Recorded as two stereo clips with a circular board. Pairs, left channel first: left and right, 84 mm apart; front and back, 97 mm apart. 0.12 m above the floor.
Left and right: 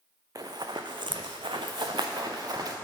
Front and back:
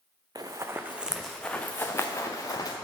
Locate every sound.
0.3 s running footsteps: 130° right, 0.6 m; by 2.8 s 50° right, 1.1 m